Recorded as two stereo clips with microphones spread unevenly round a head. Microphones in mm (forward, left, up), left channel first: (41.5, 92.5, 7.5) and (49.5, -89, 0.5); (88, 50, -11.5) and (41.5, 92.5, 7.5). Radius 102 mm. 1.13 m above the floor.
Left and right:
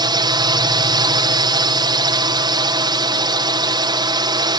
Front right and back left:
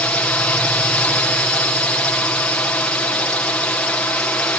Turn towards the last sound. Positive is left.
turn(degrees=-55)